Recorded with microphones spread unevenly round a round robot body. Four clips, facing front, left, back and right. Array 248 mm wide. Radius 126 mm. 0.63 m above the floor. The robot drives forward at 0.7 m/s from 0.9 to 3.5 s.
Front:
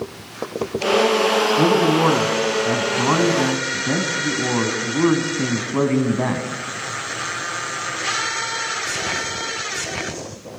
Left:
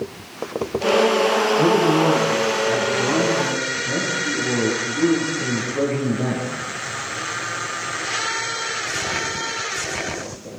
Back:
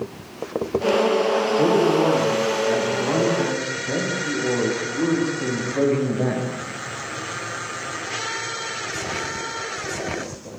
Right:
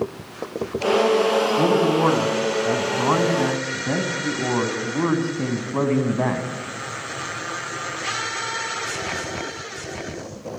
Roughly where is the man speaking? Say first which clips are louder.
Left 3 dB, even; ahead right.